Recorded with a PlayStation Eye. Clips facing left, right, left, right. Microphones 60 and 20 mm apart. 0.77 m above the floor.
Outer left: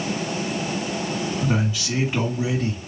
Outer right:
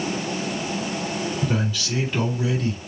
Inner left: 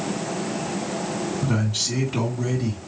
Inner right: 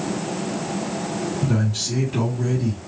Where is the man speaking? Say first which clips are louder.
Outer left 1 dB, even; 15° left (ahead or behind), 2.0 m.